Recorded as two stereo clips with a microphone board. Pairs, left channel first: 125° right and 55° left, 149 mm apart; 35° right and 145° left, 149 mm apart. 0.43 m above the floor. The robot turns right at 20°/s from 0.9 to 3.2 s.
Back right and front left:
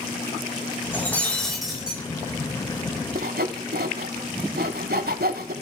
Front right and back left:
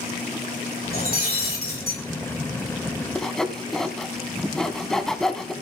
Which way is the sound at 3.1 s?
50° left.